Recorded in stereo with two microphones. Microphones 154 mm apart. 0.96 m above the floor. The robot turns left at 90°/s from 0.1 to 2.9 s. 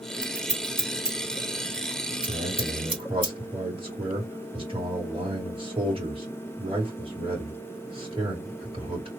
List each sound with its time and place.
0.2 s scissors: 70° left (ahead or behind), 2.5 m; by 3.3 s 10° right (ahead or behind), 2.5 m
2.3 s a man speaking: 85° right, 2.5 m; by 9.1 s 140° right, 2.5 m